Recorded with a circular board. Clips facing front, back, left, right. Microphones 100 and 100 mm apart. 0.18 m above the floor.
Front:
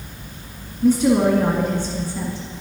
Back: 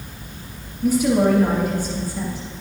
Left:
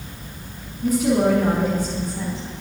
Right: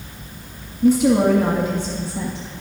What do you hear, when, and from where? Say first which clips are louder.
0.8 s a woman speaking: front 2 dB, right 4 dB; 45° right, 1.4 m